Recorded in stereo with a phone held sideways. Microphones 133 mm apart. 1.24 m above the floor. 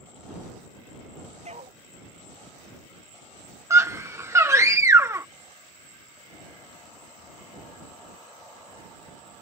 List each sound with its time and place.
1.4 s a dog barking: 55° right (ahead or behind)
3.7 s a scream: 20° right (ahead or behind)